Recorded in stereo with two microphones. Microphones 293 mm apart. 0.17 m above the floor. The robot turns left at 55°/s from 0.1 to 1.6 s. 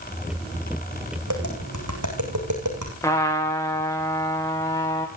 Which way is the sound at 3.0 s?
10° left (ahead or behind).